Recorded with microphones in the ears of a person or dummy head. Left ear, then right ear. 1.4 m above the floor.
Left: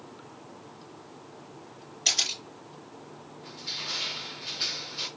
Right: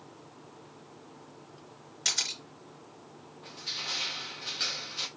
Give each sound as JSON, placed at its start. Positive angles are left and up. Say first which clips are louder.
{"t": 2.0, "sound": "a camera shutter", "louder": "left 4 dB", "side_deg": -40, "distance_m": 4.0}
{"t": 3.4, "sound": "crushing", "louder": "left 1 dB", "side_deg": -35, "distance_m": 1.3}